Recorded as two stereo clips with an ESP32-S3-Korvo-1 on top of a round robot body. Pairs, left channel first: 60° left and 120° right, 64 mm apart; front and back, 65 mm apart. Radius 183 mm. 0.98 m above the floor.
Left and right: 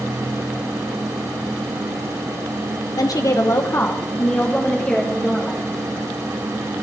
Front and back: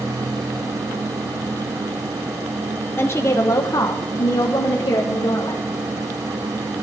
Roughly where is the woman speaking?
Ahead left.